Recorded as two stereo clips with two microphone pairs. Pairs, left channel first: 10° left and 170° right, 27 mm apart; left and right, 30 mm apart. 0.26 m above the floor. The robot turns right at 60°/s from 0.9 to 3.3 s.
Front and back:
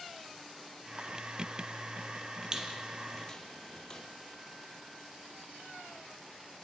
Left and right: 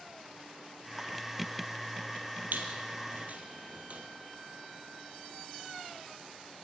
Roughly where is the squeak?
Right.